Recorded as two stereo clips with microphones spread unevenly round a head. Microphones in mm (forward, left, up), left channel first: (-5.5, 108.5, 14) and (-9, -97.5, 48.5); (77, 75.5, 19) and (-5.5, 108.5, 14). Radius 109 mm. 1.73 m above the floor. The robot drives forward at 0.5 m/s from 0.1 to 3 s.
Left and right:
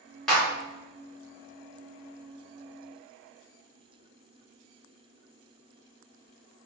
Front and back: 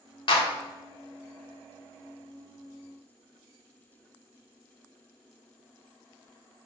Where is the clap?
Straight ahead, 2 m.